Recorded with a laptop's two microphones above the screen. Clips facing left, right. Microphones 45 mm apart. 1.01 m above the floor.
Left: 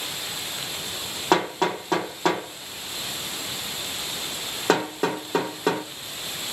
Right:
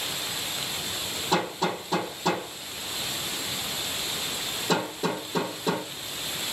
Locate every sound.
1.3 s hammering: 90° left, 2 m